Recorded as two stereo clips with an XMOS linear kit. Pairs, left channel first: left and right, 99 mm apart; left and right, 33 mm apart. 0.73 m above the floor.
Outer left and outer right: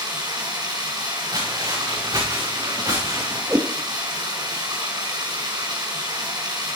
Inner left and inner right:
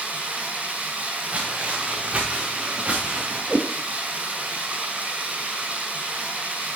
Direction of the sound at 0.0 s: 45° right (ahead or behind).